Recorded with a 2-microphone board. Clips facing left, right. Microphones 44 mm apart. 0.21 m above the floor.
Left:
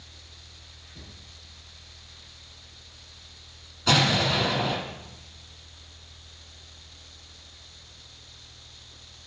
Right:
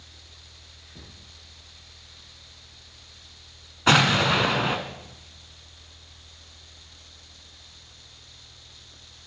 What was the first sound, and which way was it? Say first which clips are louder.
A cupboard door: even; 40° right (ahead or behind).